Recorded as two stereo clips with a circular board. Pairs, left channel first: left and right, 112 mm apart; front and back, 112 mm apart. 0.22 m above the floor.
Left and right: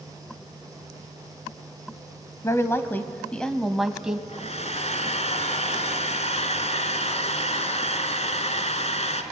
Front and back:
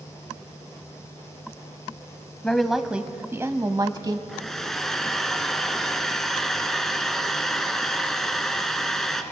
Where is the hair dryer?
85° left, 1.4 m.